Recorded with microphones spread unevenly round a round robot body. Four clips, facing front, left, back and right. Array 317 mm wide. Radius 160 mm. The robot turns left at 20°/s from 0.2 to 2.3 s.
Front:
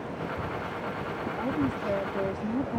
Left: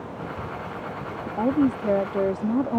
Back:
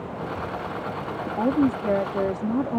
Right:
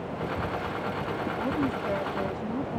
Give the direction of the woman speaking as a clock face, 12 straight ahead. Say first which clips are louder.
Left 10 dB, back 9 dB; 7 o'clock.